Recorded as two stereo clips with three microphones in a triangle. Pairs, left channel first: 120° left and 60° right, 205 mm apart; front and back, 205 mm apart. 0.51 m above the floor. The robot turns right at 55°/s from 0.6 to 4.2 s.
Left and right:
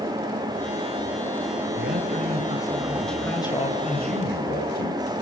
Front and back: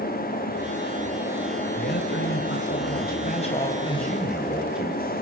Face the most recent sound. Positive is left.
turn(degrees=95)